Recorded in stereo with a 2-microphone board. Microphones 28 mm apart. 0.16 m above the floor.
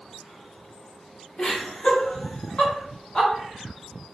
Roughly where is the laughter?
Left.